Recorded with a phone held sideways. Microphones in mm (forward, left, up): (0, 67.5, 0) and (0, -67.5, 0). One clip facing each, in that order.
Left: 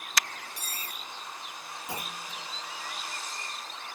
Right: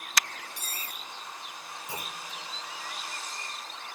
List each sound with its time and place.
0.6 s cutlery clinking: 50° right (ahead or behind), 3.5 m
1.9 s a clunk: 70° left (ahead or behind), 6.5 m